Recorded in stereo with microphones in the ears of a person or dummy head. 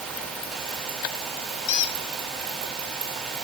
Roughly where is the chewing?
No chewing in this recording.